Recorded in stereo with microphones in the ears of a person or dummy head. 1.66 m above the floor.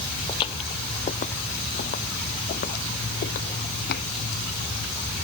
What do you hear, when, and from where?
0.3 s footsteps: 35° left (ahead or behind); by 4.1 s 65° left (ahead or behind)